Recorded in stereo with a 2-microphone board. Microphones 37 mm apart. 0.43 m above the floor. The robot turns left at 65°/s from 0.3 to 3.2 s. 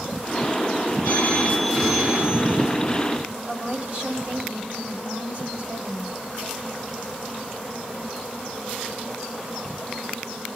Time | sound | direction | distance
1.0 | a phone ringing | 45° left | 4 m
3.5 | a woman speaking | 45° right (ahead or behind) | 3 m